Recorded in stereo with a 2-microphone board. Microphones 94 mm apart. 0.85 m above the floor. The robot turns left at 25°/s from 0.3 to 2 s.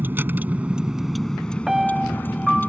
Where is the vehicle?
160° right; by 2.7 s 160° left.